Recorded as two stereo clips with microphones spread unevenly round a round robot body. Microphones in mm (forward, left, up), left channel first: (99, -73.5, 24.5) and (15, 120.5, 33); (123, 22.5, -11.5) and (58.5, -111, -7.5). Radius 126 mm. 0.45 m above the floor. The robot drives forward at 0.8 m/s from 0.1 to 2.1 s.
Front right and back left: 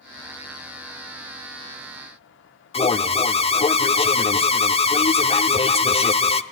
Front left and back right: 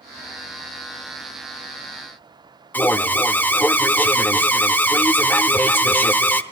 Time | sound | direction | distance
2.7 | an alarm | 10° right | 0.6 m